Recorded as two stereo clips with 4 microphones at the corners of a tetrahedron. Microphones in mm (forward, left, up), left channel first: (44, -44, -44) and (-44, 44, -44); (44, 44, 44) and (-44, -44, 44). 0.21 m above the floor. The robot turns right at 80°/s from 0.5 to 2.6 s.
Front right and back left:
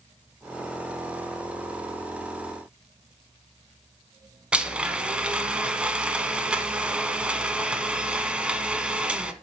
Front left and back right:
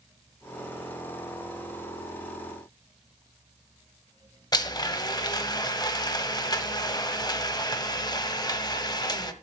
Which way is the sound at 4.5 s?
60° left.